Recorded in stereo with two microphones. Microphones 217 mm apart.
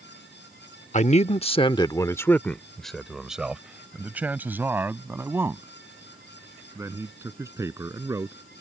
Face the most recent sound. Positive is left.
turn(degrees=-15)  # may be behind; listen again after turning